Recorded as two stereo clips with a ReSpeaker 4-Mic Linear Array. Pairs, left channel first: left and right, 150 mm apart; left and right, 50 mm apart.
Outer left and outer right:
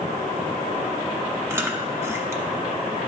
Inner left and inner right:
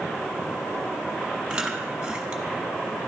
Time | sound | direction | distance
1.5 | chewing | 20° right (ahead or behind) | 0.8 m